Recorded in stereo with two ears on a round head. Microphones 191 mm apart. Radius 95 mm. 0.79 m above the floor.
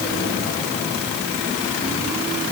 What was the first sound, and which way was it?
Only background noise.